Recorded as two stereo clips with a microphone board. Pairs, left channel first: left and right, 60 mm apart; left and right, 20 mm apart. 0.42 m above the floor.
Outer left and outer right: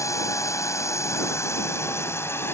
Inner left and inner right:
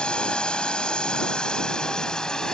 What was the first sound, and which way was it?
A drone, 60° left (ahead or behind).